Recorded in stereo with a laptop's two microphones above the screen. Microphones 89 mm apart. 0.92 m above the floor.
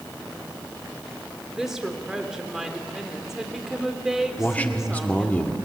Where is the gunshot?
I don't hear a gunshot.